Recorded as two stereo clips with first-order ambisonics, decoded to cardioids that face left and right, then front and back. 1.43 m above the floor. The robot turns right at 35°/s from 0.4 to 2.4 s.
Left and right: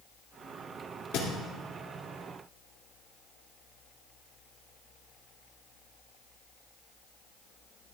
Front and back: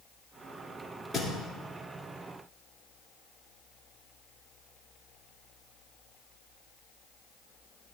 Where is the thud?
90° left, 2 m; by 1.3 s 100° left, 2 m.